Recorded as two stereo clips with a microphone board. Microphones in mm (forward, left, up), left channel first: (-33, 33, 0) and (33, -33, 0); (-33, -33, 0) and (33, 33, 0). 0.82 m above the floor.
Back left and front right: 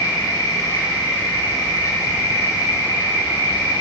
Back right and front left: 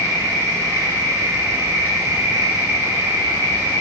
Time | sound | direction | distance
0.0 | an insect | 95° left | 3.5 m